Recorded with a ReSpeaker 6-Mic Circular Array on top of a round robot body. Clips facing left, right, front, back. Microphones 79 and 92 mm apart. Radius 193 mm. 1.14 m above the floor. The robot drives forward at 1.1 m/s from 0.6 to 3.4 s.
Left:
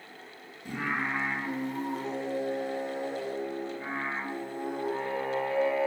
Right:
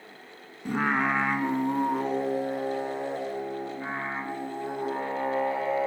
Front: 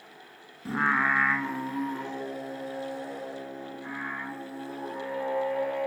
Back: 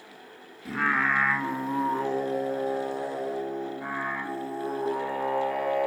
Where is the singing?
60° right, 1.3 m; by 5.9 s 155° right, 2.5 m.